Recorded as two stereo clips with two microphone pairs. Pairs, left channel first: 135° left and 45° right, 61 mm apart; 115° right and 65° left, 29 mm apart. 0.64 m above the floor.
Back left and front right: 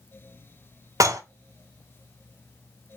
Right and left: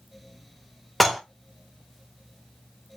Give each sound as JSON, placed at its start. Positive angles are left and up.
{"t": 1.0, "sound": "dishes clattering", "azimuth_deg": -30, "distance_m": 0.8}